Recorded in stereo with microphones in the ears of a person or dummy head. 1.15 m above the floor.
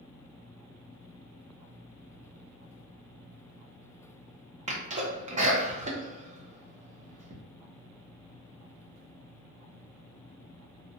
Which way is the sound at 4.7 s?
35° right (ahead or behind).